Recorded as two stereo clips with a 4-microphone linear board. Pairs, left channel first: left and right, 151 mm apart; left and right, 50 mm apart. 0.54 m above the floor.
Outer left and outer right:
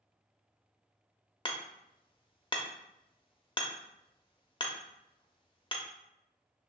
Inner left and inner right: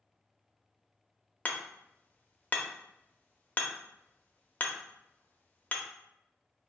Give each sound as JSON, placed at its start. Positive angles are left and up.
{"t": 1.4, "sound": "hammering", "side_deg": 30, "distance_m": 0.6}